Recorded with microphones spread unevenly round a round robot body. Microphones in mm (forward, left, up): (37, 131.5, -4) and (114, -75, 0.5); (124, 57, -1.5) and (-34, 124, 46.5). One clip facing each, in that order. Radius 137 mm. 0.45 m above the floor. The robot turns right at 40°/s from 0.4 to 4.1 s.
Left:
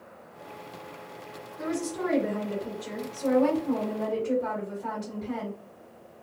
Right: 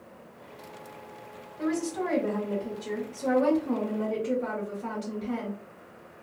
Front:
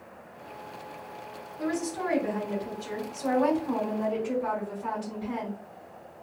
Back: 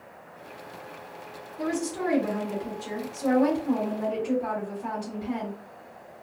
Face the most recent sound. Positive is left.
turn(degrees=-105)